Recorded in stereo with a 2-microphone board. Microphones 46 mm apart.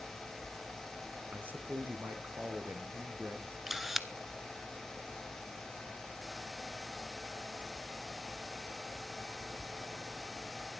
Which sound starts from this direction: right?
A man speaking, at 1.3 s.